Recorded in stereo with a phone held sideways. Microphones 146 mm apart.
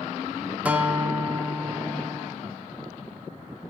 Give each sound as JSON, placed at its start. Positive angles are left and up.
{"t": 0.7, "sound": "a guitar", "side_deg": -10, "distance_m": 0.7}